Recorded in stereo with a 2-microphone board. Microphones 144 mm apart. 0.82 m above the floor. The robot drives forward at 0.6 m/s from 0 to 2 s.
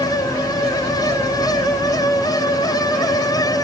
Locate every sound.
Only background noise.